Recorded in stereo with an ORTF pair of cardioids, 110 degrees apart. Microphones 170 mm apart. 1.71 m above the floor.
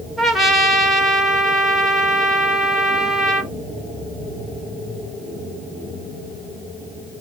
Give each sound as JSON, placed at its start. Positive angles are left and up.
{"t": 0.2, "sound": "a trumpet", "azimuth_deg": 0, "distance_m": 1.4}